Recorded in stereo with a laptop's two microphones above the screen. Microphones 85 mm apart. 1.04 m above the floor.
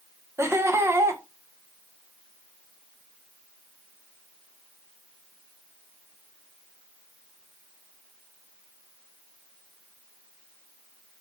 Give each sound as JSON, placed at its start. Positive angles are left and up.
{"t": 0.4, "sound": "laughter", "side_deg": -30, "distance_m": 0.7}